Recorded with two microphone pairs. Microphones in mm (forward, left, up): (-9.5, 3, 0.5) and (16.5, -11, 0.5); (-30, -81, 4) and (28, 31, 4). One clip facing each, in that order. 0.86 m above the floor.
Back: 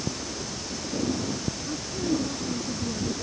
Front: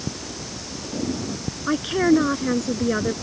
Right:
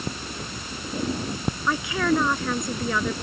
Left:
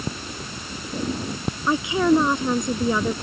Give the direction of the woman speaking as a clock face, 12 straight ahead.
12 o'clock.